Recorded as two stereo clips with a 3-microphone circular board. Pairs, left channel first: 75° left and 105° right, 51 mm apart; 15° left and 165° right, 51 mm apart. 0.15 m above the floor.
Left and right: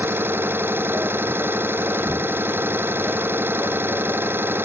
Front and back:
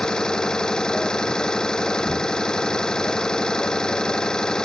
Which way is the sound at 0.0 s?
60° right.